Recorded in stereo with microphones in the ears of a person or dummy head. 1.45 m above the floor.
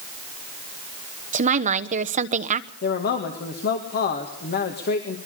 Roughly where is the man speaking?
Left.